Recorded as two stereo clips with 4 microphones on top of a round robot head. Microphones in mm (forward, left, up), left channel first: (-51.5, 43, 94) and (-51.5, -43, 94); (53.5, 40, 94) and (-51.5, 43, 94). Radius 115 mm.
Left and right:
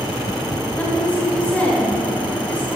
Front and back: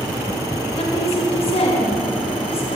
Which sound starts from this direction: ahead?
A woman speaking, at 0.8 s.